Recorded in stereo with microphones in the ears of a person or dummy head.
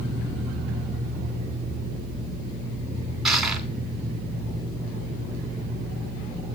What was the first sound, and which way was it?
Crushing, centre (ahead or behind).